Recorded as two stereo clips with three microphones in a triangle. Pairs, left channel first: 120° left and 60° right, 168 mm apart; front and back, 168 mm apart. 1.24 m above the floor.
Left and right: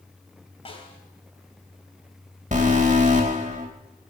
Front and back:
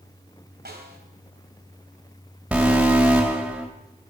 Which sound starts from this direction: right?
An alarm, at 2.5 s.